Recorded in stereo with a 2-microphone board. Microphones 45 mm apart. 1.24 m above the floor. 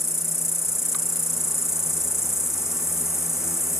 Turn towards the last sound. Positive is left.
turn(degrees=-10)  # may be behind; listen again after turning